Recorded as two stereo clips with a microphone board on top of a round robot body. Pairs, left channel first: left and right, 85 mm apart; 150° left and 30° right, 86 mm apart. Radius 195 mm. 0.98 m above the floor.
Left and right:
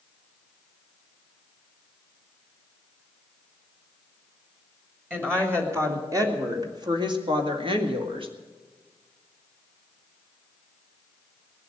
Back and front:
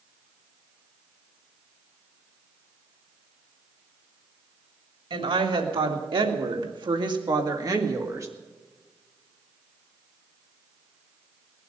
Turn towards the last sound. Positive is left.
turn(degrees=-85)